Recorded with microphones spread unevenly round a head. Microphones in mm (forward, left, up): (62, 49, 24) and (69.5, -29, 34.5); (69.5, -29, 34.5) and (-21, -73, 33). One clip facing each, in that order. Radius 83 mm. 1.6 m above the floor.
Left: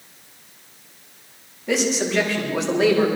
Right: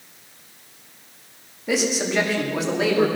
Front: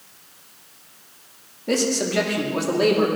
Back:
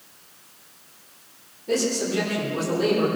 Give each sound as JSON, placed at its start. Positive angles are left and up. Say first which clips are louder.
{"t": 1.7, "sound": "a man speaking", "louder": "left 1 dB, front 2 dB", "azimuth_deg": 0, "distance_m": 4.0}